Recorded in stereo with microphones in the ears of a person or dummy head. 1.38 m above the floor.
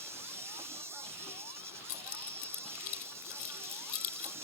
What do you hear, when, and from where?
0.0 s an insect: 15° right (ahead or behind)
1.9 s keys jangling: 45° left (ahead or behind)